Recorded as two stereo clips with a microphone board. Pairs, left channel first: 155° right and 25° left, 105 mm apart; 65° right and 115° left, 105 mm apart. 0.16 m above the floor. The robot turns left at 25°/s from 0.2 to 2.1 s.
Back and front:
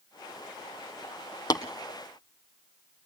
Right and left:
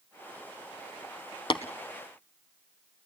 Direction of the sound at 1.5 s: 105° right.